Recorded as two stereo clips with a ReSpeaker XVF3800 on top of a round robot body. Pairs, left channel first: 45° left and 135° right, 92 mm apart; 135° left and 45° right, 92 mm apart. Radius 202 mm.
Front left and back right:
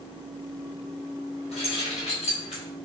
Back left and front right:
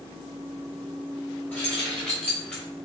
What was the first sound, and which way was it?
Keys jangling, 60° left.